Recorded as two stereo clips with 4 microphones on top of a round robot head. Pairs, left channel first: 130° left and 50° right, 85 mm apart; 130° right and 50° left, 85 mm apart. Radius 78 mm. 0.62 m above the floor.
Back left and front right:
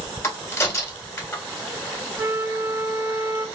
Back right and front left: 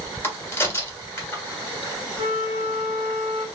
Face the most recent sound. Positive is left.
turn(degrees=15)